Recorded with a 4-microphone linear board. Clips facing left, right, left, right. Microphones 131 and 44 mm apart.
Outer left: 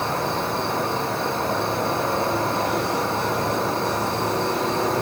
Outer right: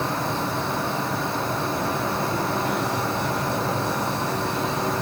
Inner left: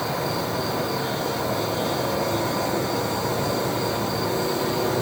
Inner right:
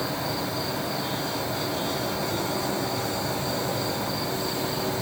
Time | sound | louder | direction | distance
0.0 | an insect | outer left 1 dB, inner left 3 dB | 60° left (ahead or behind) | 8 m